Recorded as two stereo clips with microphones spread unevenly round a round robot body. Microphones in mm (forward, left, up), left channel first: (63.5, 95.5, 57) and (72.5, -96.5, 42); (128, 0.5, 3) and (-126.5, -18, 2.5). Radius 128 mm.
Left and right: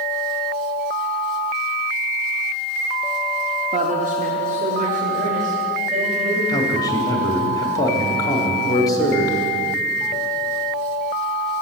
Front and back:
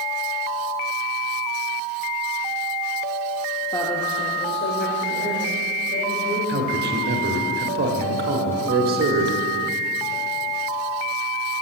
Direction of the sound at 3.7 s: 70° right.